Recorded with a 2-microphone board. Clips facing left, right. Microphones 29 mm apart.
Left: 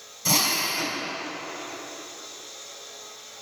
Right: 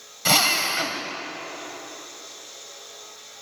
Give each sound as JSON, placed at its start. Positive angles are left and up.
{"t": 0.2, "sound": "a drill", "side_deg": -50, "distance_m": 3.5}